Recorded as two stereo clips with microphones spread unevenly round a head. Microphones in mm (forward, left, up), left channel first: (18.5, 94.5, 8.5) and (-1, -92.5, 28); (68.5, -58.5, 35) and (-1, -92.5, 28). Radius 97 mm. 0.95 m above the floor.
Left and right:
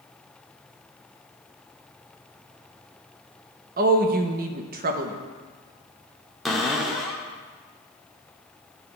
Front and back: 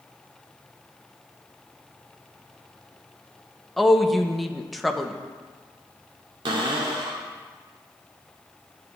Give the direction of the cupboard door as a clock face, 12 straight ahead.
6 o'clock.